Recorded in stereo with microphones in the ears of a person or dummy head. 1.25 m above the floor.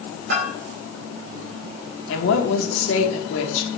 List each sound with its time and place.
0.3 s a bell: 65° right (ahead or behind), 2.5 m
2.1 s a woman speaking: 70° left (ahead or behind), 1.8 m